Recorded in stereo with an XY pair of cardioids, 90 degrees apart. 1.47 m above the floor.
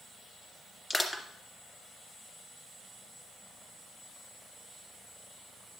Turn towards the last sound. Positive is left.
turn(degrees=20)